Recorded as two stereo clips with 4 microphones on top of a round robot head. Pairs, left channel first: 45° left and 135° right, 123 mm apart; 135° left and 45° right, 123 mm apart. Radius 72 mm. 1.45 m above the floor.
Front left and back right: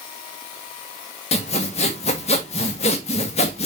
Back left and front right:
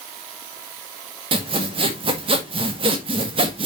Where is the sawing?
5° left, 1.6 m.